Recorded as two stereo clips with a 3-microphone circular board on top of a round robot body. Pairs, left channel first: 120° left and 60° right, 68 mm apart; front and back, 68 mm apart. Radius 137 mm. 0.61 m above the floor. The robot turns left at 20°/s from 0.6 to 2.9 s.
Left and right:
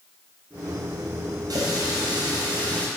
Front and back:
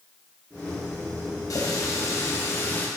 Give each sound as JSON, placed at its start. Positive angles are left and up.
{"t": 1.5, "sound": "a running tap", "azimuth_deg": -35, "distance_m": 3.5}